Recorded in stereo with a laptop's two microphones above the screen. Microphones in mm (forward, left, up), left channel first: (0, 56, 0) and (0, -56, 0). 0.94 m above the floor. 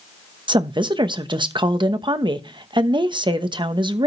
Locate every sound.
0.5 s a woman speaking: 45° right (ahead or behind), 1.0 m